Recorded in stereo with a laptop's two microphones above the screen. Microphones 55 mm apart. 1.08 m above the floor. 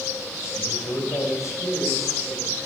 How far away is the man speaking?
About 5 m.